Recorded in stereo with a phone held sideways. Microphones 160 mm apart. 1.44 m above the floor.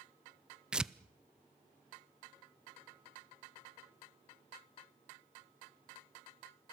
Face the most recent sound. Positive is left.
turn(degrees=-5)  # may be behind; listen again after turning